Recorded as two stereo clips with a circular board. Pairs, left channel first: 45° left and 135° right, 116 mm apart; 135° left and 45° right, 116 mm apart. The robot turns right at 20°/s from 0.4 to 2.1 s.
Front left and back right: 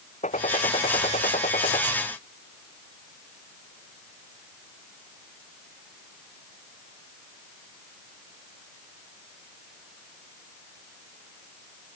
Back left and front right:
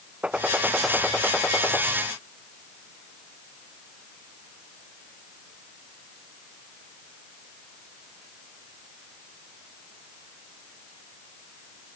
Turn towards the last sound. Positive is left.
turn(degrees=70)